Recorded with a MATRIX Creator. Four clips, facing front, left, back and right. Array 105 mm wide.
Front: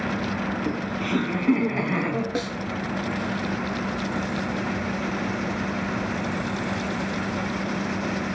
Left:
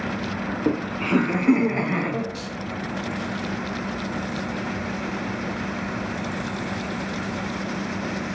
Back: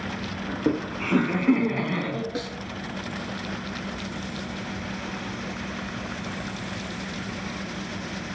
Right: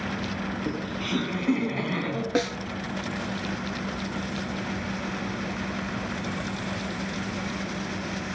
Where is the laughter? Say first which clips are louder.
Left 6 dB, back 1 dB; 130° left, 1.6 m; by 2.2 s 30° left, 1.3 m.